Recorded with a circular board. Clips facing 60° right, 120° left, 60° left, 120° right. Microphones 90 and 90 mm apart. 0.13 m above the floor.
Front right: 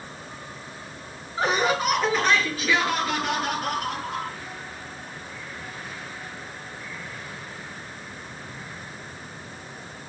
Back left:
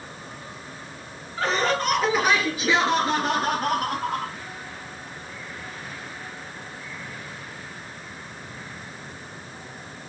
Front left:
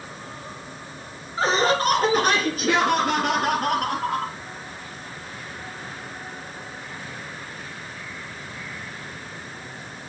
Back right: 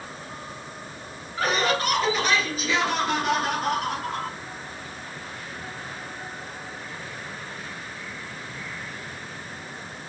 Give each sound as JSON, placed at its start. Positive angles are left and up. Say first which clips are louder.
{"t": 1.4, "sound": "laughter", "louder": "front right 1 dB, front left 3 dB", "azimuth_deg": 0, "distance_m": 1.9}